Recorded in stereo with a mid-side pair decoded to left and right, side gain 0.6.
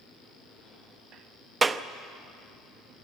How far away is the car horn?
No car horn in this recording.